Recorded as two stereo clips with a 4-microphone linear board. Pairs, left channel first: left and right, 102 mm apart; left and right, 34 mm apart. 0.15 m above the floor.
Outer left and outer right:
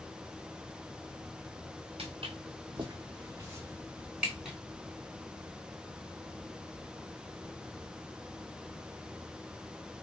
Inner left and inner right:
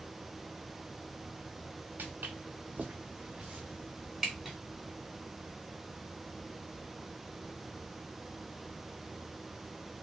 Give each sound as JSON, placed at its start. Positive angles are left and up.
{"t": 2.0, "sound": "footsteps", "side_deg": -80, "distance_m": 1.1}